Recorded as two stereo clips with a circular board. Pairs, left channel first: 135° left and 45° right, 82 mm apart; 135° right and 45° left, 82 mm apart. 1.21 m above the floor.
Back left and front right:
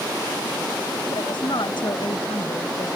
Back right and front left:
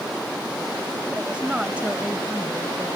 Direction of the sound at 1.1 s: 120° left.